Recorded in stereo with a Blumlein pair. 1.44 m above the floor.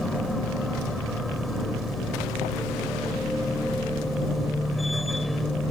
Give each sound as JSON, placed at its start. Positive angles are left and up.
{"t": 0.0, "sound": "a machine running", "azimuth_deg": 5}